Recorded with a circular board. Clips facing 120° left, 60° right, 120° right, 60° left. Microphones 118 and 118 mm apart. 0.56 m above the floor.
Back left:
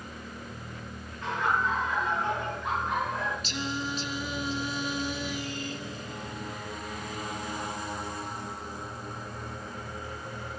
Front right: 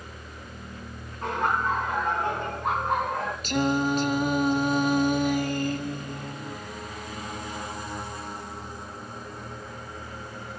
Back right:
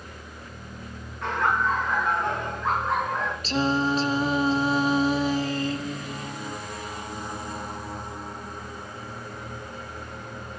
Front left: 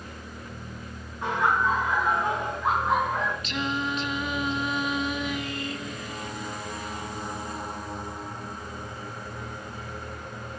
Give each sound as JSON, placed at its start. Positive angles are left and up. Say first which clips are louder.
{"t": 1.2, "sound": "laughter", "louder": "front right 2 dB, even", "azimuth_deg": -10, "distance_m": 9.5}
{"t": 3.4, "sound": "singing", "louder": "front right 10 dB, back right 6 dB", "azimuth_deg": -70, "distance_m": 0.5}